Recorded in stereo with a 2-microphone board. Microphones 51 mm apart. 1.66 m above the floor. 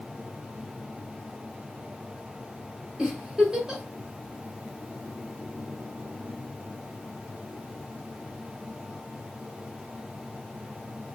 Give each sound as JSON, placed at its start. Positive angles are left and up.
{"t": 3.0, "sound": "a giggle", "side_deg": -20, "distance_m": 1.0}